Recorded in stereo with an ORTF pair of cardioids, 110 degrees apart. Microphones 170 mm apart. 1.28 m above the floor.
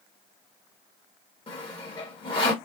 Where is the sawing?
30° left, 1.5 m.